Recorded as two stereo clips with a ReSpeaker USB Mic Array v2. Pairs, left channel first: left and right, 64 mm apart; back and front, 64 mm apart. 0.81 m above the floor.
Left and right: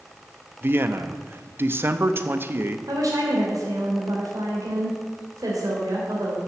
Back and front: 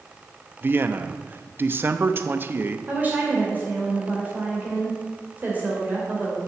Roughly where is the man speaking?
Ahead right.